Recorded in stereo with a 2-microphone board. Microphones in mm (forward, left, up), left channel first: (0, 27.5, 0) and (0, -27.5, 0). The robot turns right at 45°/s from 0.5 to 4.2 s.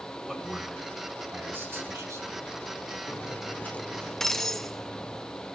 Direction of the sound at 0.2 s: Straight behind.